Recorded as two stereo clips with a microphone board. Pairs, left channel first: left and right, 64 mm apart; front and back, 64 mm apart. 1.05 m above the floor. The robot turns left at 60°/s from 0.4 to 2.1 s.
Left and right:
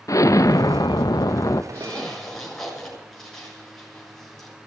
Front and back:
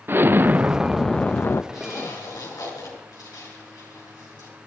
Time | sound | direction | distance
0.1 | an explosion | 125° left | 0.6 m
1.7 | a zipper | 30° left | 7.5 m